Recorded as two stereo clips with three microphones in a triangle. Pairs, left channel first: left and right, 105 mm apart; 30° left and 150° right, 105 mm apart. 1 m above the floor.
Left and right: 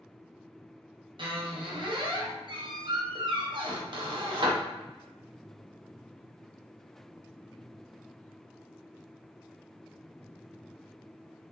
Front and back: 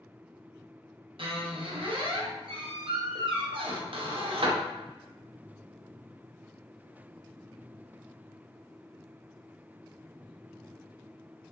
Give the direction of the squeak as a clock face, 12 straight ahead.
4 o'clock.